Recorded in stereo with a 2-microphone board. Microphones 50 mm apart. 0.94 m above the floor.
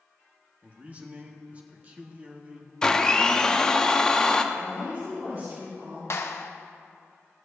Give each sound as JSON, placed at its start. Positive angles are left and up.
{"t": 0.6, "sound": "a man speaking", "side_deg": -30, "distance_m": 1.3}
{"t": 2.8, "sound": "a blender", "side_deg": 15, "distance_m": 0.6}
{"t": 4.5, "sound": "a woman speaking", "side_deg": -55, "distance_m": 3.5}
{"t": 6.1, "sound": "a clap", "side_deg": 55, "distance_m": 0.6}